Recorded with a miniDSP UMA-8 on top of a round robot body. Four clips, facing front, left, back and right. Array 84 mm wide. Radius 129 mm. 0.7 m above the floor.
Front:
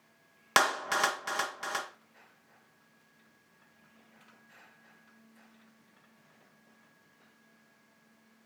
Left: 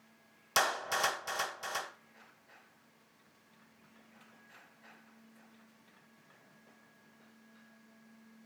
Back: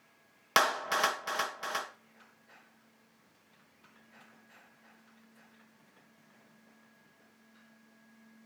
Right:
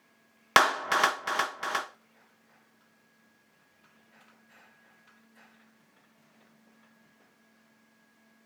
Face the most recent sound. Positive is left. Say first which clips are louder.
# right 9 dB, front 1 dB
turn(degrees=-80)